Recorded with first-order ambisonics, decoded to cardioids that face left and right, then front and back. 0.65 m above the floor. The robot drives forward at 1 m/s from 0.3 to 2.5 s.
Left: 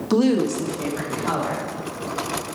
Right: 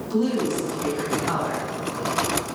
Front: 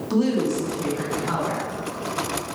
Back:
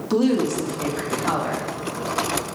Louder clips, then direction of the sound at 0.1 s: Left 4 dB, back 2 dB; 105° left.